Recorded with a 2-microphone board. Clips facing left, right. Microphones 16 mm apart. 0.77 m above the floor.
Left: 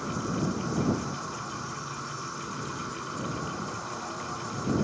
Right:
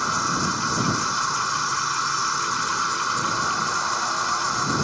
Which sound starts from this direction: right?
An insect, at 0.0 s.